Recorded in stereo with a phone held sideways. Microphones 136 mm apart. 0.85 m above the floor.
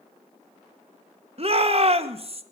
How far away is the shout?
About 0.7 m.